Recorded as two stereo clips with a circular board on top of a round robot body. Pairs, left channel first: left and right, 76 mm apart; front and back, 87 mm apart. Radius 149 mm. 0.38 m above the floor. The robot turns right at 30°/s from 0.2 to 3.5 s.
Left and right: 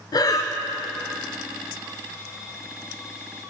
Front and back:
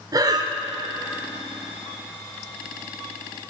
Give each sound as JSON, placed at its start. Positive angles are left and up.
{"t": 0.1, "sound": "breathing", "azimuth_deg": 130, "distance_m": 0.6}